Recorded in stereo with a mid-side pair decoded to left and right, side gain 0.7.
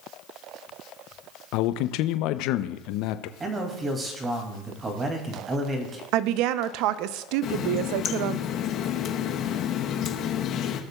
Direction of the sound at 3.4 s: 30° right.